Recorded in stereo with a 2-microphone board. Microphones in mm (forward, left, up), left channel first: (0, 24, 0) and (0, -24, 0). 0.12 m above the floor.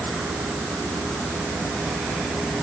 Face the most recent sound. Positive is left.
No sound to turn to.